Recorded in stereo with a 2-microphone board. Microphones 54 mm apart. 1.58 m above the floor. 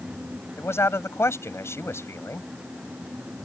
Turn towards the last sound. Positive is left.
turn(degrees=55)  # may be behind; listen again after turning